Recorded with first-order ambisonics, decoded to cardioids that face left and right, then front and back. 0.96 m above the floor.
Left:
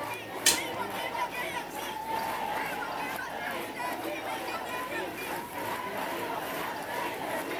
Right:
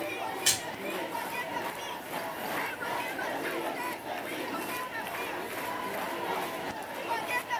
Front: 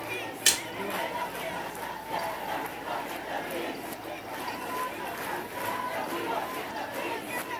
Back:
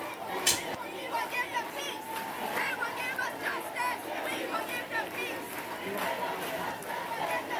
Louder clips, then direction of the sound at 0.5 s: Left 3 dB, front 4 dB; 15° left.